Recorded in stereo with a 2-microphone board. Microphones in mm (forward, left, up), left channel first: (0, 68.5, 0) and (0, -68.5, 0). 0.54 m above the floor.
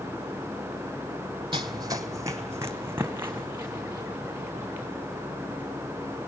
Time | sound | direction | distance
1.5 | running footsteps | 35° right (ahead or behind) | 1.1 m